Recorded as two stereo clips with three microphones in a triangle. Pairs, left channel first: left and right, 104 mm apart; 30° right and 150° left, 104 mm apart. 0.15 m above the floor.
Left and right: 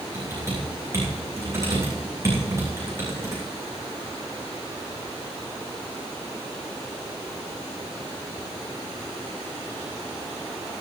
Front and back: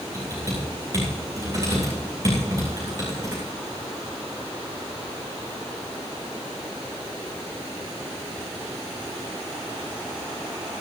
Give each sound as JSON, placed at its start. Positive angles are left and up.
{"t": 0.1, "sound": "typing on a keyboard", "azimuth_deg": -150, "distance_m": 10.0}